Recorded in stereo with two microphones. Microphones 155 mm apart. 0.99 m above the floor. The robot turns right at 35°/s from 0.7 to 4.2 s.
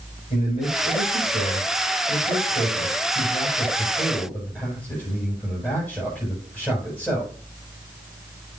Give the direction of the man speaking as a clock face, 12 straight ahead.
10 o'clock.